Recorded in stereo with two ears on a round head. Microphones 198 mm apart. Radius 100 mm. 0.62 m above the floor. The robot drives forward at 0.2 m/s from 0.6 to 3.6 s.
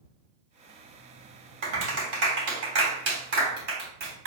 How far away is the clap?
About 1.7 m.